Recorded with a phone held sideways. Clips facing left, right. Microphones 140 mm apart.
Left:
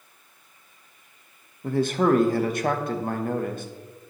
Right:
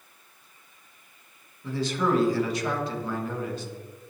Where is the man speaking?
55° left (ahead or behind), 0.9 m.